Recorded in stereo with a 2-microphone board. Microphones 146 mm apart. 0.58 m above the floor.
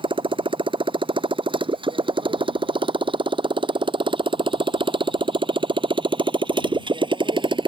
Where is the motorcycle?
35° right (ahead or behind); by 7.7 s 30° right (ahead or behind).